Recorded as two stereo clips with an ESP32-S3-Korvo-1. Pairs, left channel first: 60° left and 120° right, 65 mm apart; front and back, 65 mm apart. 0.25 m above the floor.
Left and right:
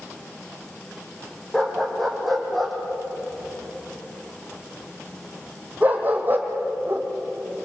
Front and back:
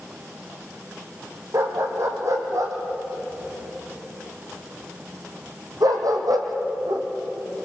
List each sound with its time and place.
1.5 s a dog barking: 145° left, 4.5 m; by 7.1 s 170° right, 3.5 m